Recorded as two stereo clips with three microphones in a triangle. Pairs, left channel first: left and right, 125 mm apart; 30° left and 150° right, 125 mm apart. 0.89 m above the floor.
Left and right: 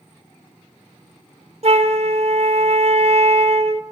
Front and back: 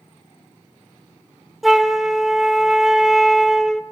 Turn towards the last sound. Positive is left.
turn(degrees=-60)